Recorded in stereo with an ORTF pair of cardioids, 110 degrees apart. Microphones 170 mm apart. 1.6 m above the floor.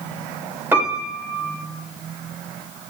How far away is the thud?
I don't hear a thud.